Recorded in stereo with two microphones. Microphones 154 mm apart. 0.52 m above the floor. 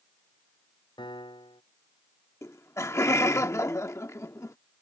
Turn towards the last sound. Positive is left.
turn(degrees=20)  # may be behind; listen again after turning